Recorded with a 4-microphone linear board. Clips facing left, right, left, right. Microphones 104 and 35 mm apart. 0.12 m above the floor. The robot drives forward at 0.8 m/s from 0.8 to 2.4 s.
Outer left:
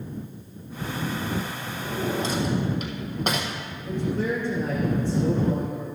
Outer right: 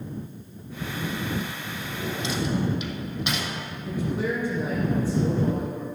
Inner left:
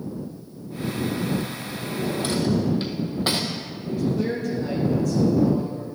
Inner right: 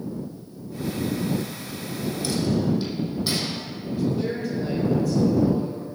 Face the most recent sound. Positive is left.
turn(degrees=-5)  # may be behind; listen again after turning